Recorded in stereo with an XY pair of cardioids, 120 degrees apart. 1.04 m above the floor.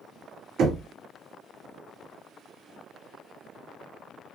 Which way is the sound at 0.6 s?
60° right.